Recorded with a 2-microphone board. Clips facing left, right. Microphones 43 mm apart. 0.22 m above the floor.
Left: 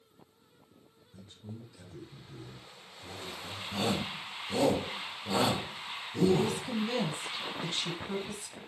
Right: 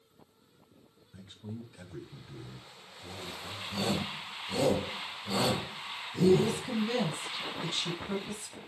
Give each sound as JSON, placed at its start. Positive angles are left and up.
{"t": 1.1, "sound": "a man speaking", "side_deg": -55, "distance_m": 3.0}
{"t": 3.7, "sound": "a shout", "side_deg": 40, "distance_m": 3.0}
{"t": 6.3, "sound": "a woman speaking", "side_deg": 0, "distance_m": 1.1}